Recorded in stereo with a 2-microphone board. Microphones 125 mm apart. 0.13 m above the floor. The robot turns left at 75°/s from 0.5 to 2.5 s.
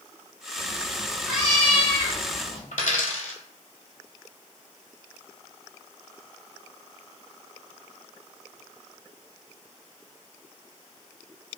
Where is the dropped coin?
80° left, 0.6 m.